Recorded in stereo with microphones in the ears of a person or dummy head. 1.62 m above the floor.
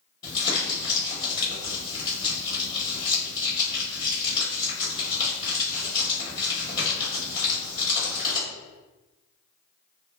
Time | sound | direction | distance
0.2 | crumpling | 25° left (ahead or behind) | 1.1 m